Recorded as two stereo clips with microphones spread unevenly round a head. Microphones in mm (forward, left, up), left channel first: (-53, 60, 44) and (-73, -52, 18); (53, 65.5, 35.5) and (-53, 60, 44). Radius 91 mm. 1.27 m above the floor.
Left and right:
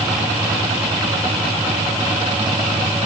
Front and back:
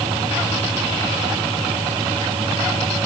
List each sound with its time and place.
Only background noise.